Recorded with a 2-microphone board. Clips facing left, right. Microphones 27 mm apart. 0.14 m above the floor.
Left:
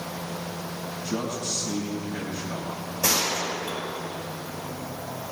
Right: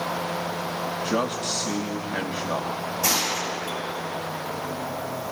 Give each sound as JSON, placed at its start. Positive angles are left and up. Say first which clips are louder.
{"t": 1.0, "sound": "a man speaking", "louder": "right 3 dB", "side_deg": -70, "distance_m": 3.5}
{"t": 3.0, "sound": "a gunshot", "louder": "left 1 dB", "side_deg": 25, "distance_m": 6.0}